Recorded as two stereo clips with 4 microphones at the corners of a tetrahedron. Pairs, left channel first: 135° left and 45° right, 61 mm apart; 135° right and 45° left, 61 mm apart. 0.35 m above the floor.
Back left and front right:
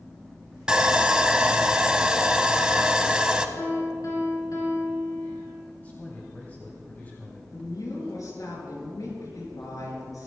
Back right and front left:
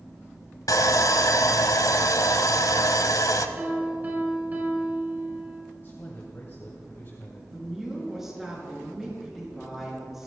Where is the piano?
105° left, 4.5 m.